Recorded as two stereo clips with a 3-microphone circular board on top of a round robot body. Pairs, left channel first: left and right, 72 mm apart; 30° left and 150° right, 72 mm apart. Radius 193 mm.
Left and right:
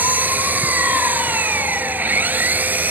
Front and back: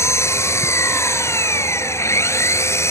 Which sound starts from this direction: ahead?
An engine running, at 0.0 s.